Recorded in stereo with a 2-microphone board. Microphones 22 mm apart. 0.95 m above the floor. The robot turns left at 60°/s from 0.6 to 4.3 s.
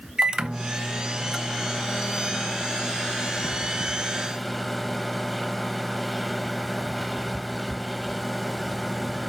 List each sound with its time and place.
0.2 s a microwave: 135° right, 0.9 m; by 9.3 s 5° left, 0.9 m